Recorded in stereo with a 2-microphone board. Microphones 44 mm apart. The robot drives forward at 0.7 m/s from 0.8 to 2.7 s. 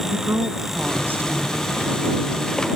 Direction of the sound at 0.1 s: 55° right (ahead or behind).